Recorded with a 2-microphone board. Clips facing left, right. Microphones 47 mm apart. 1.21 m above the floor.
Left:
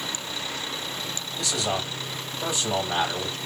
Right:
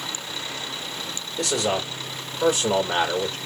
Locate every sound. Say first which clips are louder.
1.4 s a man speaking: right 4 dB; 65° right (ahead or behind), 1.9 m